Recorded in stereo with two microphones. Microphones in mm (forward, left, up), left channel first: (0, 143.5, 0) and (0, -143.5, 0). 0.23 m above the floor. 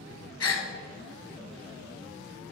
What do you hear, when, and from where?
0.4 s a gasp: 60° left (ahead or behind), 0.8 m